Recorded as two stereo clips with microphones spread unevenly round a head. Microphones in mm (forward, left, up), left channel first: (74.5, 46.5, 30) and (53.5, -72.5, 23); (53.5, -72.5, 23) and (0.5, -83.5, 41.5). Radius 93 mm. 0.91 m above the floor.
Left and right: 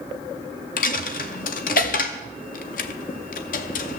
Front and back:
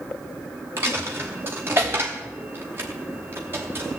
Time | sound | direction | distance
0.8 | a dropped coin | 120° left | 0.6 m